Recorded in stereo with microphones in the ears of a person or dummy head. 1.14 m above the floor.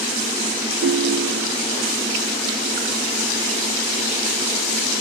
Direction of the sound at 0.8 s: 35° right (ahead or behind).